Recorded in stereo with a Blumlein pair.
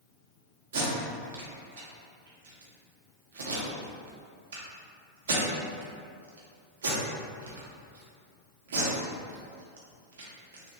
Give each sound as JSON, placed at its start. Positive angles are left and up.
{"t": 0.7, "sound": "tape being pulled", "azimuth_deg": -60, "distance_m": 0.7}